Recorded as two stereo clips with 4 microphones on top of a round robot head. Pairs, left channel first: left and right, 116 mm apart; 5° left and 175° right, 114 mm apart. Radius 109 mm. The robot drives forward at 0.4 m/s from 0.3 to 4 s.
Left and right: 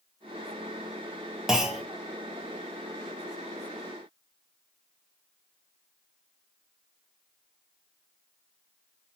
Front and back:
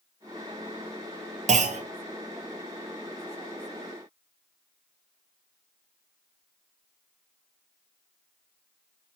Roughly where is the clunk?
Behind.